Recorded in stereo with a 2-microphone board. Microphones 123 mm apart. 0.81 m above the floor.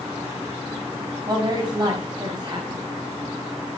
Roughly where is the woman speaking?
Right.